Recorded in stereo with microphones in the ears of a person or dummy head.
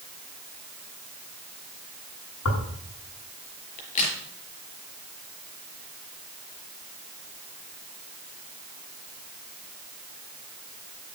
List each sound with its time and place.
2.5 s tearing paper: 80° left, 7.5 m
3.8 s a crack: 40° left (ahead or behind), 4.5 m